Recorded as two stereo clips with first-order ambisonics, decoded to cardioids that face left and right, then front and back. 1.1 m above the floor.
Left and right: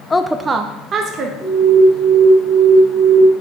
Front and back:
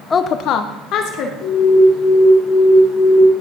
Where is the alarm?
5° left, 3.5 m.